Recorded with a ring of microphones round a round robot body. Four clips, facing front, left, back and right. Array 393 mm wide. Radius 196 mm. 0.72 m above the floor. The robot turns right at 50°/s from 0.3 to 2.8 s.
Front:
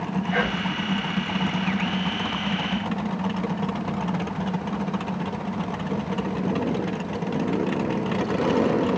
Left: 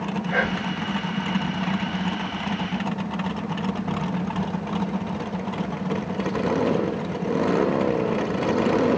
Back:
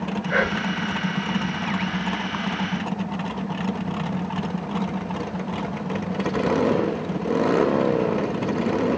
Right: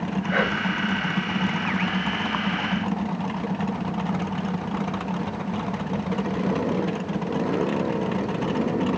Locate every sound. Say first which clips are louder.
0.3 s whispering: right 2 dB, back 4 dB; 160° right, 1.9 m; by 0.8 s 135° right, 1.9 m